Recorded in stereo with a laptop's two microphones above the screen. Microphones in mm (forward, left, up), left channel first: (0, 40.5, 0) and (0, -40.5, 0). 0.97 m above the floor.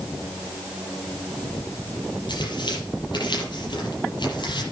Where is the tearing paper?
65° left (ahead or behind), 6.5 m.